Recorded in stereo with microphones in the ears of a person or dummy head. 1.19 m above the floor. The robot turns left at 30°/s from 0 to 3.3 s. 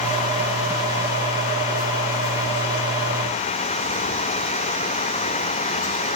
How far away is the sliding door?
I don't hear a sliding door.